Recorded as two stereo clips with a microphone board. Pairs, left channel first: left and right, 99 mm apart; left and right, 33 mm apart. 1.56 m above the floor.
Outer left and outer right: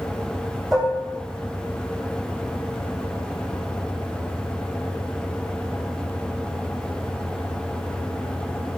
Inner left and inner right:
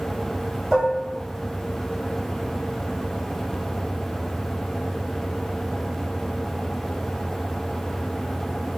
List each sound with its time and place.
0.7 s dishes clattering: 5° right (ahead or behind), 1.9 m